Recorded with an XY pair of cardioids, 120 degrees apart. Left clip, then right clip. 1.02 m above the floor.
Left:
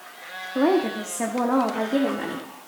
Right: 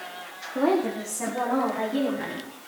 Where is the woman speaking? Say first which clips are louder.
Left 2 dB; 20° left, 1.9 m; by 2.5 s 65° left, 3 m.